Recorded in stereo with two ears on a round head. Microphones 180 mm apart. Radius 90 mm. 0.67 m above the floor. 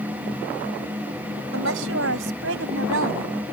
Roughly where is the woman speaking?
Right.